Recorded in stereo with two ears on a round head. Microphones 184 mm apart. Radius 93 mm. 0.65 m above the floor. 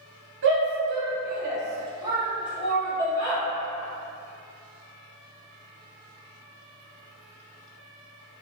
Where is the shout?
60° right (ahead or behind), 1.0 m; by 3.4 s 20° left (ahead or behind), 1.0 m.